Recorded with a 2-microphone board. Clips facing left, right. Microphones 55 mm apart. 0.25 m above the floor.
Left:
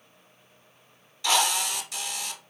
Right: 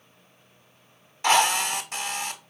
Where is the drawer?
No drawer in this recording.